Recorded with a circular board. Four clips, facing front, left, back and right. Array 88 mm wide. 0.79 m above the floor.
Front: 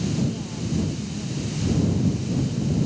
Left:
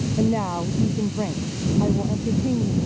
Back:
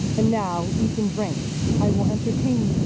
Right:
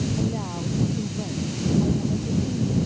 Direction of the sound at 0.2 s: 150° left.